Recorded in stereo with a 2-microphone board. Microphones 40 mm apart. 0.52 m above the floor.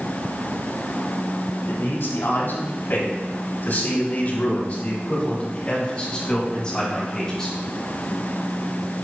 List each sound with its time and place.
1.7 s a man speaking: 75° left (ahead or behind), 3 m; by 7.5 s 15° left (ahead or behind), 5.5 m